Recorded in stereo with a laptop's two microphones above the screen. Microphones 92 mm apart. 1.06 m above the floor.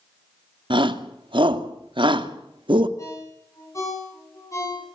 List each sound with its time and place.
0.7 s a shout: 65° right (ahead or behind), 2 m
3.0 s a ringtone: 35° left (ahead or behind), 9.5 m